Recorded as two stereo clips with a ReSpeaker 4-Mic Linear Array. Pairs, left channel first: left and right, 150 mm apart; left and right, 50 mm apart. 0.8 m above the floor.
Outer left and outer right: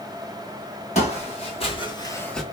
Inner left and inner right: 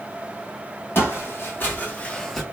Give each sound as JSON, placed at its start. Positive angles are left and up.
{"t": 0.9, "sound": "footsteps", "side_deg": 45, "distance_m": 1.9}